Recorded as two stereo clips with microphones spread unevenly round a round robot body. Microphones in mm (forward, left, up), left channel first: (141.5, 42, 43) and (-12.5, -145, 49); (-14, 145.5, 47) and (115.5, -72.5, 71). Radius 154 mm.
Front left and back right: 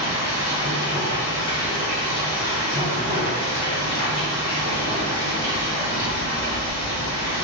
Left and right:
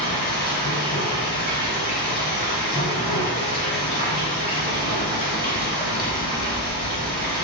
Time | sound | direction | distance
0.0 | running water | 65° left | 1.8 m